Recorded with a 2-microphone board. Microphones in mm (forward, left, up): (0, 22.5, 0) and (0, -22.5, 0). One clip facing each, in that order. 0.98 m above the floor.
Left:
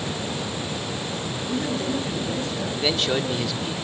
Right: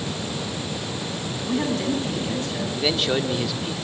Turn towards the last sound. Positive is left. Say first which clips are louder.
# right 1 dB
turn(degrees=-5)  # may be behind; listen again after turning